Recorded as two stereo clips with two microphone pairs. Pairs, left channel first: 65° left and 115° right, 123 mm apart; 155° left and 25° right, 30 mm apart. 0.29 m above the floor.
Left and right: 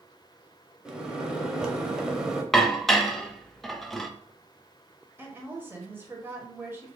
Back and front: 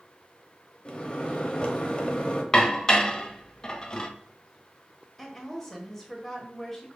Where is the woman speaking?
135° right, 1.2 m.